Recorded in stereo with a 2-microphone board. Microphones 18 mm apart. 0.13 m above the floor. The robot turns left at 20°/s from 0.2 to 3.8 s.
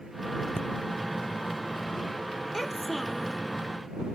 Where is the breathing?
55° left (ahead or behind).